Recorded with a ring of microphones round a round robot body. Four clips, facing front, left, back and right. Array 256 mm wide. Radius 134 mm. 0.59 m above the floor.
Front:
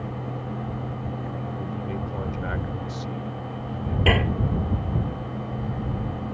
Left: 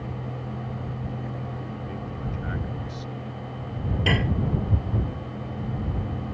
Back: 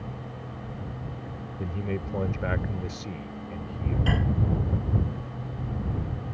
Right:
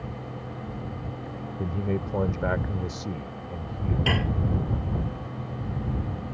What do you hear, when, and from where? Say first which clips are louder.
1.6 s a man speaking: right 5 dB, front 2 dB; 110° right
4.1 s dishes clattering: left 3 dB, front 7 dB; 10° left